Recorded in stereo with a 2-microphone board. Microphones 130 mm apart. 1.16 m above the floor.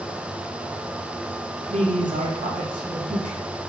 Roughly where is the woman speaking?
Right.